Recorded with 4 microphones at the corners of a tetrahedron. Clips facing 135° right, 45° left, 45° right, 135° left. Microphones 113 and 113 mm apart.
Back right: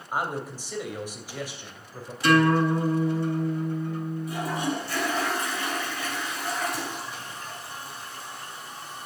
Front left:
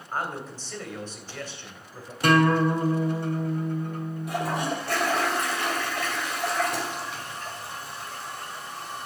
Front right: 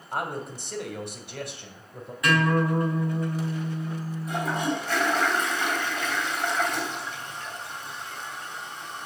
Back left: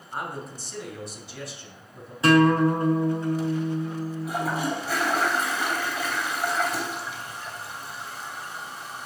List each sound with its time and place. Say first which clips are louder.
0.1 s a man speaking: back right 2 dB, front right 3 dB; 55° right, 2.5 m
2.2 s a guitar: even, back left 6 dB; 75° left, 3 m
4.3 s a toilet flushing: front left 3 dB, front right 1 dB; 55° left, 2.5 m